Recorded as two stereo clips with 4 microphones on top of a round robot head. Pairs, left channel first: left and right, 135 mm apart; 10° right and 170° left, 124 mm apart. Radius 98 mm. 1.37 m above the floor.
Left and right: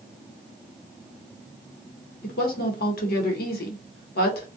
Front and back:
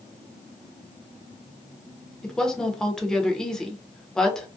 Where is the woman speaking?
75° left, 0.8 m.